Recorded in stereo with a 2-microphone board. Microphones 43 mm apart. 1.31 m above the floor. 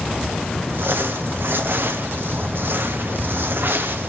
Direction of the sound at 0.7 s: 55° right (ahead or behind).